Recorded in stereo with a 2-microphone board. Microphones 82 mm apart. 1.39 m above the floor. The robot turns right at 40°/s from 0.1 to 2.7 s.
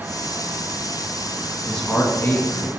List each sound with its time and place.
1.6 s a man speaking: 5° left (ahead or behind), 2 m; by 2.7 s 45° left (ahead or behind), 2 m